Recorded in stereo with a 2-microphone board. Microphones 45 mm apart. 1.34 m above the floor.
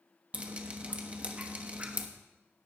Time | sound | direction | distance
0.3 | dripping | 25° right (ahead or behind) | 1.0 m